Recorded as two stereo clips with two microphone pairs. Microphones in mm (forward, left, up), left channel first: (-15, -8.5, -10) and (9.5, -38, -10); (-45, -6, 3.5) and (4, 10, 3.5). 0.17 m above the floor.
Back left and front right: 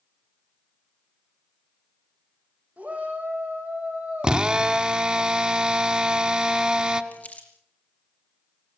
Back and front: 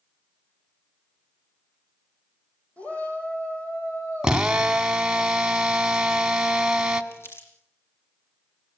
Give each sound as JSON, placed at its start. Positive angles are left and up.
{"t": 2.8, "sound": "a shout", "azimuth_deg": -100, "distance_m": 8.5}
{"t": 4.2, "sound": "a drill", "azimuth_deg": -35, "distance_m": 1.2}
{"t": 7.1, "sound": "crumpling", "azimuth_deg": 175, "distance_m": 3.5}